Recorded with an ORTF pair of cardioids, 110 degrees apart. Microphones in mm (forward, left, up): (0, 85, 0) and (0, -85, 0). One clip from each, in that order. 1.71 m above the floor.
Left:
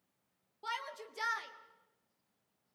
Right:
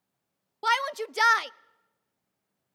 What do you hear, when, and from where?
0.6 s a shout: 70° right, 0.6 m